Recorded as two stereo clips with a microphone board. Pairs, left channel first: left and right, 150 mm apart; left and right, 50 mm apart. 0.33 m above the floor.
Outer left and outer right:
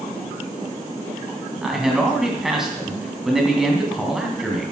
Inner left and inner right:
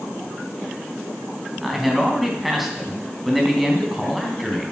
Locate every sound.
1.6 s a man speaking: 5° right (ahead or behind), 2.5 m